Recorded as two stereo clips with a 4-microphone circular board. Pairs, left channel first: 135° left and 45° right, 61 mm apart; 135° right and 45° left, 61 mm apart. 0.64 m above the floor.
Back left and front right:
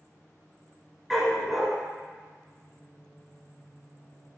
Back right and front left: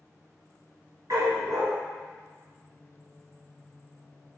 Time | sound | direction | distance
1.1 | a dog barking | 45° left | 3 m